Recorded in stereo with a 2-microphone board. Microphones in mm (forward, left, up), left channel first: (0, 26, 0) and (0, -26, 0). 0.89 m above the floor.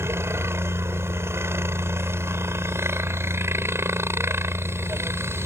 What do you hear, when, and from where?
0.0 s a helicopter: 60° right (ahead or behind)